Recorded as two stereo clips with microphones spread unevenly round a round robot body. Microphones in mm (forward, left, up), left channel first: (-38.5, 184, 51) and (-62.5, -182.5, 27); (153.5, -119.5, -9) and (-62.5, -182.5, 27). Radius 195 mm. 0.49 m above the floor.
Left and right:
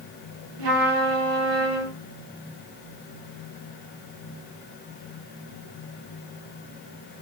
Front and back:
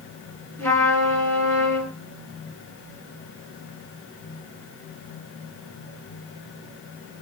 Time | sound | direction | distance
0.6 | a trumpet | 65° right | 6 m